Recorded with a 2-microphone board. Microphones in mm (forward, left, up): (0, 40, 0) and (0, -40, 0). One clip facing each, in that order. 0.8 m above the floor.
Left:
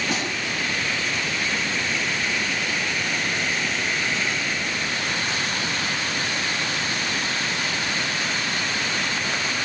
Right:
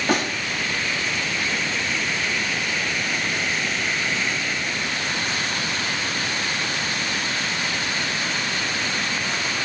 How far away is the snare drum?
About 1.8 m.